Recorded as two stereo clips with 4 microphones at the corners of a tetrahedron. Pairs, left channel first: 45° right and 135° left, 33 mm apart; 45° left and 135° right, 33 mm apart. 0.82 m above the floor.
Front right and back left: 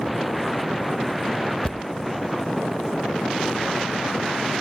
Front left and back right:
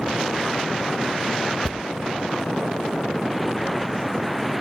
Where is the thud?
35° right, 0.5 m.